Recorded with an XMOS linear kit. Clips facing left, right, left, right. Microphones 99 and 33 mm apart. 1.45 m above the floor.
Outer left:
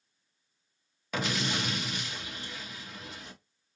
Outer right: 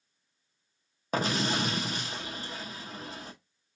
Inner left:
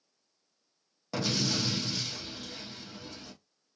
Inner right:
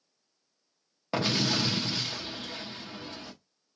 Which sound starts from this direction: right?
An explosion, at 1.1 s.